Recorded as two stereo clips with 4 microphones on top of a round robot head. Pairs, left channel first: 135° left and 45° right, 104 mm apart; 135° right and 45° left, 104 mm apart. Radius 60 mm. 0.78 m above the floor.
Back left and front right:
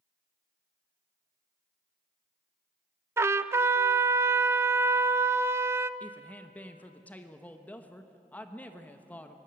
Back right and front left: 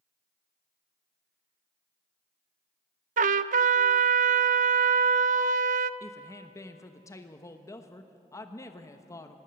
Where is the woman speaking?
160° right, 1.1 m.